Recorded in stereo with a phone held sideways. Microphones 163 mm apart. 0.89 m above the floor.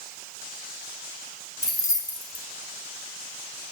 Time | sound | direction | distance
1.6 | keys jangling | 20° left (ahead or behind) | 0.8 m